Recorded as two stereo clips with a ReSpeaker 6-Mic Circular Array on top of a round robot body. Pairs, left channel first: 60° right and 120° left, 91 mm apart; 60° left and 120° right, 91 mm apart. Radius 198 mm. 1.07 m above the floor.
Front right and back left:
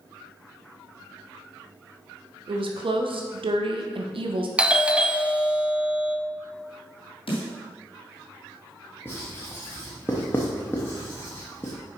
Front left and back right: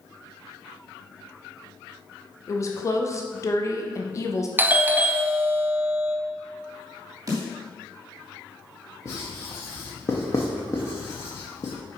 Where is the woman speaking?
115° left, 1.0 m.